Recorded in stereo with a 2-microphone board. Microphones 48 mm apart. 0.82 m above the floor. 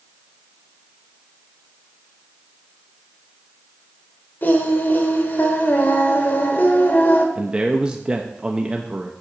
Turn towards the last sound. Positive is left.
turn(degrees=-20)  # may be behind; listen again after turning